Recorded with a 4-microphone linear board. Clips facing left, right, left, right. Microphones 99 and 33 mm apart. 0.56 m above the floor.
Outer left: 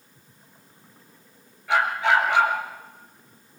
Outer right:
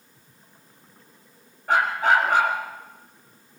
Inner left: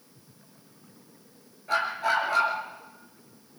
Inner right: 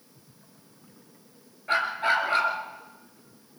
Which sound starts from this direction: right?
A dog barking, at 1.7 s.